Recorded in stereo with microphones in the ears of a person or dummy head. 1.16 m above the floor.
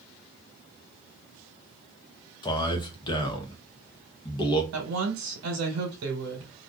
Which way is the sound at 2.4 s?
20° left (ahead or behind).